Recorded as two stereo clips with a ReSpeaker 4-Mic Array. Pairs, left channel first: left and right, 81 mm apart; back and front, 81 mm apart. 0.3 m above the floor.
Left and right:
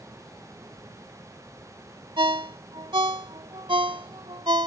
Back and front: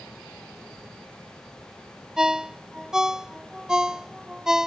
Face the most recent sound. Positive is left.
turn(degrees=-85)